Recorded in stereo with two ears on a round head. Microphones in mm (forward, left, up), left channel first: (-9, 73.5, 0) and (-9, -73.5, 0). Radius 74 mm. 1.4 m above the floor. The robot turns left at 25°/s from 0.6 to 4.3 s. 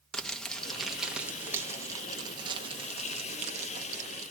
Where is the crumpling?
5° left (ahead or behind), 0.6 m; by 4.3 s 45° right (ahead or behind), 0.6 m.